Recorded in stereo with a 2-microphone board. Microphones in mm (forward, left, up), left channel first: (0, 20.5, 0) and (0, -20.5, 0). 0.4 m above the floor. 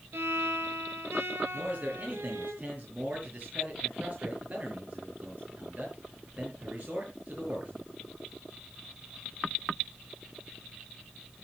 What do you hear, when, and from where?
0.1 s a violin: 85° right, 2.5 m
1.5 s a man speaking: 35° right (ahead or behind), 7 m